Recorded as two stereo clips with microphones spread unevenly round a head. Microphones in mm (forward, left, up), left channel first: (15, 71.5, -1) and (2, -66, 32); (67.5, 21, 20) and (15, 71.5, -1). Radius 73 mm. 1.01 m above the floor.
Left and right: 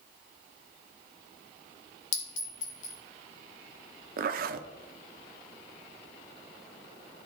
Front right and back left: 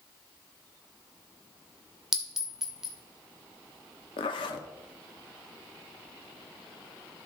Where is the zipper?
70° right, 0.6 m.